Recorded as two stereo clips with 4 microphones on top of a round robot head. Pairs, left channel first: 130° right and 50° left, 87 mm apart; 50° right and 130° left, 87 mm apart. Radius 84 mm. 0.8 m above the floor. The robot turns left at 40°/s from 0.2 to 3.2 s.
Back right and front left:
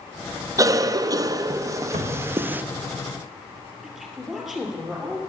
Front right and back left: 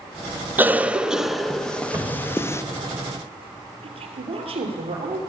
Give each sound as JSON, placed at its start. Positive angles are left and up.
{"t": 0.6, "sound": "a cough", "azimuth_deg": 70, "distance_m": 0.6}
{"t": 1.9, "sound": "a cupboard door", "azimuth_deg": 60, "distance_m": 1.2}
{"t": 3.8, "sound": "a woman speaking", "azimuth_deg": 135, "distance_m": 3.0}